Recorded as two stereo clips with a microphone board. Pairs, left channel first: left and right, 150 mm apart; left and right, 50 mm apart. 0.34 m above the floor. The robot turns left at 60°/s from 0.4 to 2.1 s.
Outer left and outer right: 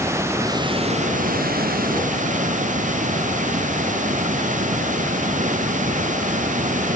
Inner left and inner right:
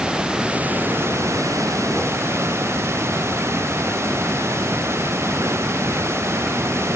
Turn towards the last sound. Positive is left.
turn(degrees=-120)